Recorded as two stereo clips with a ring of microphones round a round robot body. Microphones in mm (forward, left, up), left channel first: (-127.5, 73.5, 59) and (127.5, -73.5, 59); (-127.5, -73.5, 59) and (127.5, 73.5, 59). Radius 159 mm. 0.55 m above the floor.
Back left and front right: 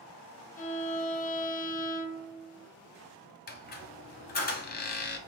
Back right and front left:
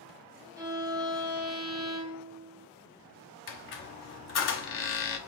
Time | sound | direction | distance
0.6 | a violin | 105° left | 1.0 m
3.5 | a squeak | 165° right | 0.7 m